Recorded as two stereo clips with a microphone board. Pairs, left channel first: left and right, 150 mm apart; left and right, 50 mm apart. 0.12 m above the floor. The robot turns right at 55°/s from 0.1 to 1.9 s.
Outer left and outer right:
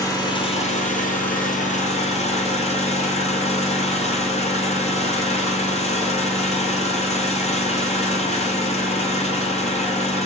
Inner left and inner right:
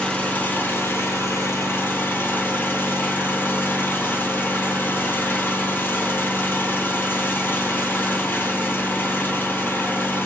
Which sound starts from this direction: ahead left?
An engine running, at 0.0 s.